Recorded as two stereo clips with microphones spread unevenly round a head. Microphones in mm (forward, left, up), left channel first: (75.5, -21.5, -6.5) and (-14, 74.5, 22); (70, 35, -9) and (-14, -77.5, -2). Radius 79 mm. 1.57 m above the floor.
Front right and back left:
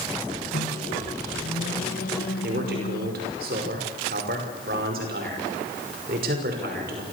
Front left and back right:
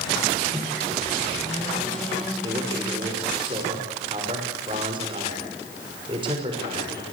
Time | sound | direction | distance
0.5 | a microwave | 35° right | 1.8 m
2.4 | a man speaking | 170° left | 6 m